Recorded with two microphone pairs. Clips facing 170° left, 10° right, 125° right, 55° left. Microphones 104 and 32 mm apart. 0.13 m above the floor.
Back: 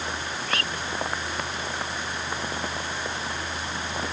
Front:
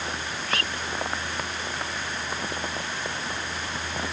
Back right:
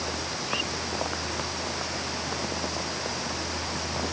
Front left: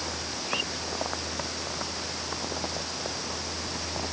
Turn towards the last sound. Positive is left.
No sound to turn to.